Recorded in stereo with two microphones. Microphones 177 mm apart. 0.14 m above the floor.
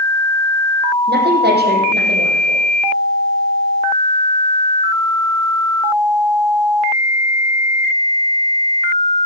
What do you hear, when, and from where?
1.1 s a woman speaking: 70° right (ahead or behind), 5 m